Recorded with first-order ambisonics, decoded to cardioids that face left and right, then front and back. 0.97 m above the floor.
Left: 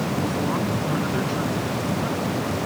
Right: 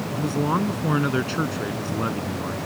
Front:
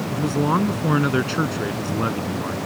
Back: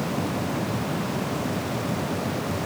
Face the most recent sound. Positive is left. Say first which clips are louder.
# right 5 dB, front 6 dB
turn(degrees=-25)